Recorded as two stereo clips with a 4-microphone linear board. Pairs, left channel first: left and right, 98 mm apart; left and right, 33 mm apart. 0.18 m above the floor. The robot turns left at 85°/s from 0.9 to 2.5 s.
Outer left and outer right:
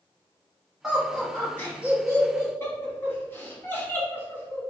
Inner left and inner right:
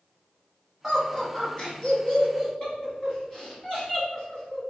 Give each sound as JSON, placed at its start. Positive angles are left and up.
{"t": 0.8, "sound": "laughter", "side_deg": -5, "distance_m": 1.2}